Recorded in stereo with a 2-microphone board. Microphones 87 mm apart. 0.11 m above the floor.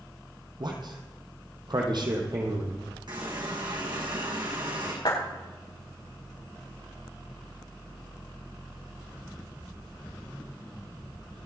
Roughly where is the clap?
Left.